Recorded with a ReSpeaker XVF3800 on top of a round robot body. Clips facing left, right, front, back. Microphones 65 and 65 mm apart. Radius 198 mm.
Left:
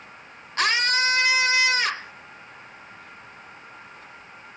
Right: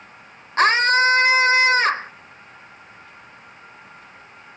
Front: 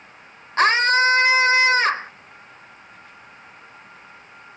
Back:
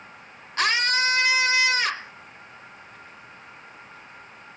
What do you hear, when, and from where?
0.6 s a scream: 45° right